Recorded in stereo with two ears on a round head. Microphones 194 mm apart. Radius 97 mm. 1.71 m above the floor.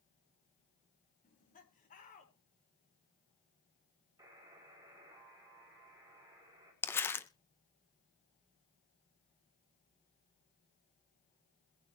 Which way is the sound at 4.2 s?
15° right (ahead or behind).